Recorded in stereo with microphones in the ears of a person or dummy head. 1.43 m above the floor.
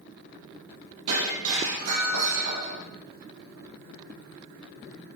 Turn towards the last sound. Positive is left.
turn(degrees=-80)